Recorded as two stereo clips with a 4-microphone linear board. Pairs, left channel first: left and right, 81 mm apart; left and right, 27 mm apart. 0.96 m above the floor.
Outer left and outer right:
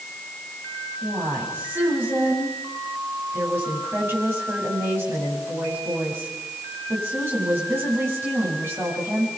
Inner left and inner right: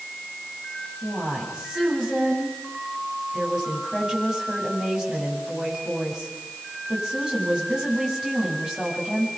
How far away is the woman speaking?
About 8 m.